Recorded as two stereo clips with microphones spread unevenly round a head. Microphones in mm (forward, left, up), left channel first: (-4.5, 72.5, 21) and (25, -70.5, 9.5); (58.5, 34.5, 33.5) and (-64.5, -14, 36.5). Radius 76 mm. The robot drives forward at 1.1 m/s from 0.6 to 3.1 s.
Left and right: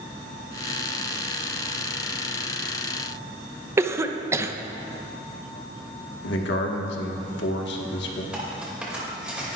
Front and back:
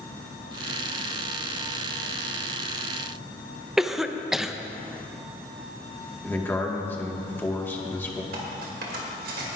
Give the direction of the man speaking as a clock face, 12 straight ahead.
9 o'clock.